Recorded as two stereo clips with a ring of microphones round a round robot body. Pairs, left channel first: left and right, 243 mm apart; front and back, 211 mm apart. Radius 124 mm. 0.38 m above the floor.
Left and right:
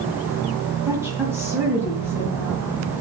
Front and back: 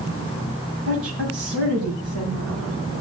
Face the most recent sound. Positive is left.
turn(degrees=-170)